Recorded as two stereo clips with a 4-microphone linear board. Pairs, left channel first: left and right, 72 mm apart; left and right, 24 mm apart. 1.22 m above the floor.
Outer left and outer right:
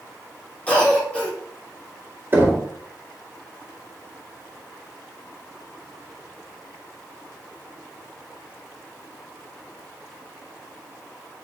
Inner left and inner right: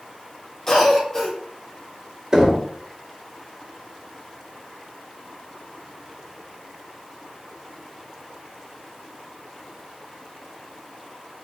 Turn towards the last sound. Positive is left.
turn(degrees=-30)  # may be behind; listen again after turning